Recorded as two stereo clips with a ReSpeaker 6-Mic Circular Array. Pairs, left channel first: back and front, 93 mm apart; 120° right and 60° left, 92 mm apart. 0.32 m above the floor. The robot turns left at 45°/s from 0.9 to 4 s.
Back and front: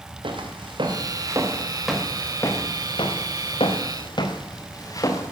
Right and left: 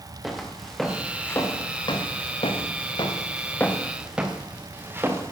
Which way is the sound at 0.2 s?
25° right.